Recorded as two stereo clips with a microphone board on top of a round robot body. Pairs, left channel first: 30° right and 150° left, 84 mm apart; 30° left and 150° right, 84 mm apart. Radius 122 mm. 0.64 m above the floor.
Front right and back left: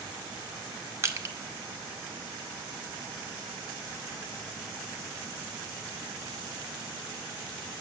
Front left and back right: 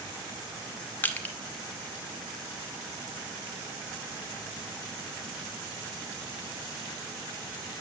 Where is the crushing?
95° left, 1.0 m.